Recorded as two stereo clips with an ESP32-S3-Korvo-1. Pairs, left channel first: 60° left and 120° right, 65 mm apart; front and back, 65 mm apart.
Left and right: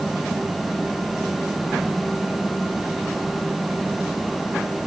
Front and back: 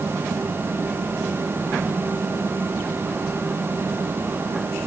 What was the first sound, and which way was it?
Only background noise.